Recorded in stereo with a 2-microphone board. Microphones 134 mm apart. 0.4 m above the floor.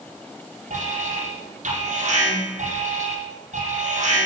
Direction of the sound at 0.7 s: 70° right (ahead or behind).